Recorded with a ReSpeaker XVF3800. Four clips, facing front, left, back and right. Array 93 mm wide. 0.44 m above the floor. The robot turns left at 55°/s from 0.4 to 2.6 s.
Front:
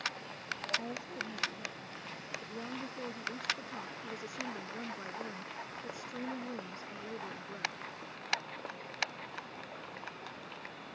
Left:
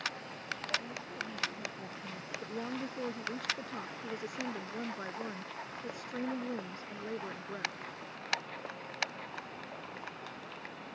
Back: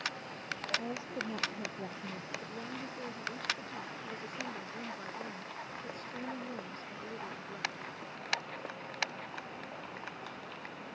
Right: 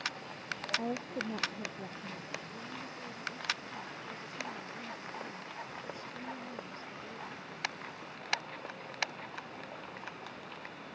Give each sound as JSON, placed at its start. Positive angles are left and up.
{"t": 0.8, "sound": "a woman speaking", "azimuth_deg": -100}
{"t": 2.4, "sound": "a woman speaking", "azimuth_deg": 85}